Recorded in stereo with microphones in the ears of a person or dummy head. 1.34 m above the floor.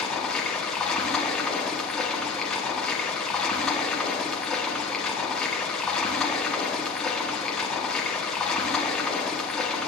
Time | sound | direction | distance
0.0 | running water | centre (ahead or behind) | 1.3 m